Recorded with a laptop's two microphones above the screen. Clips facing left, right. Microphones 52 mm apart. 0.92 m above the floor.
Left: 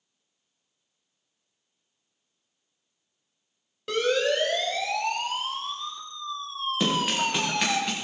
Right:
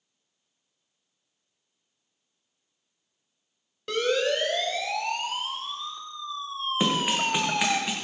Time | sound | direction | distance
3.9 | a siren | 5° left (ahead or behind) | 3.5 m
6.8 | running footsteps | 20° right (ahead or behind) | 4.5 m